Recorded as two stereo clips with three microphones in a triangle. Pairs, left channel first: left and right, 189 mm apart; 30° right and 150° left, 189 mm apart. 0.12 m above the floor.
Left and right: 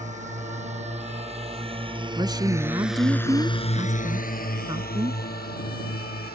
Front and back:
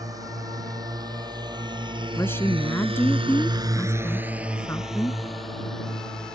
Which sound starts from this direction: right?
A woman speaking, at 2.2 s.